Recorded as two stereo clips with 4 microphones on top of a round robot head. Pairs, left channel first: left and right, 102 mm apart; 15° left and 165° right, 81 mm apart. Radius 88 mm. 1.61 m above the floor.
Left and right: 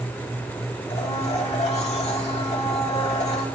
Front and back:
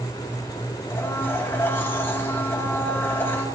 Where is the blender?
75° left, 3 m.